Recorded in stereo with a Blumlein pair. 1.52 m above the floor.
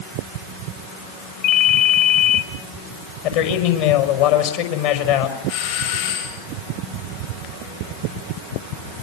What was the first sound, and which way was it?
A ringtone, 45° left.